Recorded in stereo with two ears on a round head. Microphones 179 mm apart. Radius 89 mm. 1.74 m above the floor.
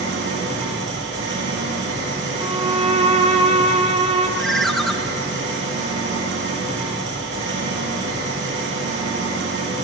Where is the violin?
25° right (ahead or behind), 0.9 m.